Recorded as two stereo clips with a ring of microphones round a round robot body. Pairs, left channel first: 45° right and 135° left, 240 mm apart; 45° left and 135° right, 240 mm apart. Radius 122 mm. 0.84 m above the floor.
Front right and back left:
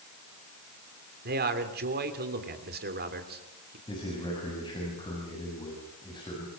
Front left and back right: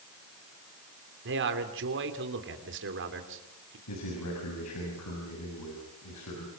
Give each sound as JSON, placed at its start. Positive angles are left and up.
{"t": 1.2, "sound": "a man speaking", "azimuth_deg": -175, "distance_m": 3.0}
{"t": 3.9, "sound": "a man speaking", "azimuth_deg": 25, "distance_m": 7.0}